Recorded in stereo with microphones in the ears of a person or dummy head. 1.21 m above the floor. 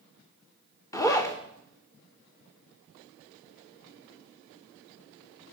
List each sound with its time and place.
0.9 s a zipper: 15° left (ahead or behind), 0.7 m